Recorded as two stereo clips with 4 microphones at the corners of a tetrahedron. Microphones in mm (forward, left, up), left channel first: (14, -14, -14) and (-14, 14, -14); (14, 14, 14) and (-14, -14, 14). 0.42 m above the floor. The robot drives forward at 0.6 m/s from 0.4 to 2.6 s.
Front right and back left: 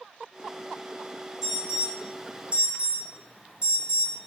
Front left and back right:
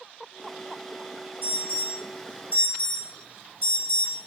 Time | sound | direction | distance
1.4 | an alarm | 55° left | 1.8 m